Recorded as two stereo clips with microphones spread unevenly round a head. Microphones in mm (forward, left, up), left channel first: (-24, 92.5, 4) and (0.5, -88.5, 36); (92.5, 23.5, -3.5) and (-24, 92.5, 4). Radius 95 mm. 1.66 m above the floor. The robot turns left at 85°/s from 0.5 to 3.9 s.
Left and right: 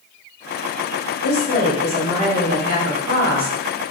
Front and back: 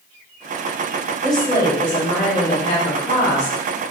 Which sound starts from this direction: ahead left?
A woman speaking, at 1.2 s.